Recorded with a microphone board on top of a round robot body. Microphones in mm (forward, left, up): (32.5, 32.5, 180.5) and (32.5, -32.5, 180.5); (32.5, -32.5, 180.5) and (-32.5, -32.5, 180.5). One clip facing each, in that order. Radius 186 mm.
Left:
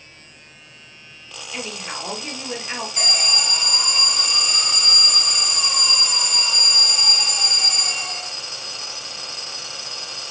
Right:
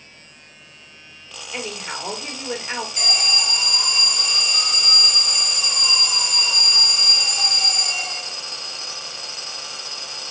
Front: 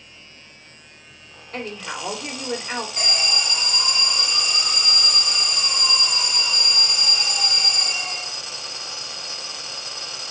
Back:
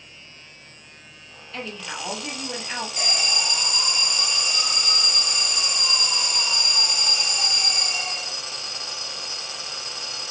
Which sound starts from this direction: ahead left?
An alarm, at 3.0 s.